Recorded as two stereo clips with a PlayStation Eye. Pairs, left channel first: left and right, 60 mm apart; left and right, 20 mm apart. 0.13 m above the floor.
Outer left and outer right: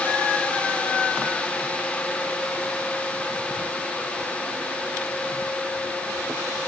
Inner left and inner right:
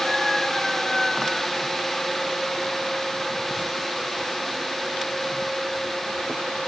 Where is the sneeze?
No sneeze in this recording.